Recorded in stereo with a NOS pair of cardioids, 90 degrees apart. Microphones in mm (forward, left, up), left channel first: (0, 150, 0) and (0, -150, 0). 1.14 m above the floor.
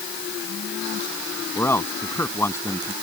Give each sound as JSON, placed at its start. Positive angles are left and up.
{"t": 1.6, "sound": "a man speaking", "azimuth_deg": 10}